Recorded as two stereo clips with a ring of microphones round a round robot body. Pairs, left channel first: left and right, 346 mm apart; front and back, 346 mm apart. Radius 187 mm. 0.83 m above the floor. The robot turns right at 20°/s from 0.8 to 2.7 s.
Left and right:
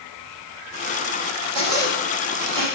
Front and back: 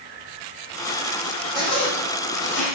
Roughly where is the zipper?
Right.